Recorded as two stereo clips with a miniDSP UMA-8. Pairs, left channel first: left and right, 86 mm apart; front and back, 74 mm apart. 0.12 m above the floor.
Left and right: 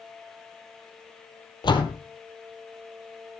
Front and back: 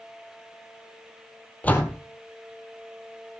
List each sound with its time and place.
1.6 s a door slam: 70° left, 2 m